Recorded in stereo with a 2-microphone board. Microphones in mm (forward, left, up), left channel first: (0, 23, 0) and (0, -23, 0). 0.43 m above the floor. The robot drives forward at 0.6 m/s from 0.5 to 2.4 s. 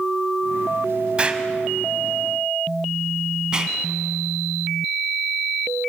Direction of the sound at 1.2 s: 25° right (ahead or behind).